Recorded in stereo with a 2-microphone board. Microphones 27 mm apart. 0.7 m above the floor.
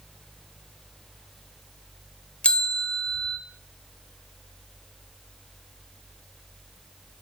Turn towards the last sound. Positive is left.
turn(degrees=45)  # may be behind; listen again after turning